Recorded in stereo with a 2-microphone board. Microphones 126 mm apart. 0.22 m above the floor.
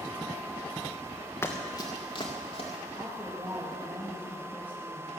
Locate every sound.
1.4 s running footsteps: 20° left (ahead or behind), 1.7 m; by 2.7 s 50° left (ahead or behind), 2.5 m
3.0 s a woman speaking: 15° right (ahead or behind), 4.5 m